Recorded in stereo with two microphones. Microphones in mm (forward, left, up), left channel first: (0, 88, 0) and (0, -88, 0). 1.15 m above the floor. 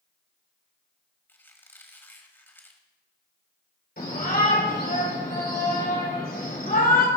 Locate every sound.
1.3 s a squeak: 10° left (ahead or behind), 1.4 m
4.0 s a shout: 55° left (ahead or behind), 4 m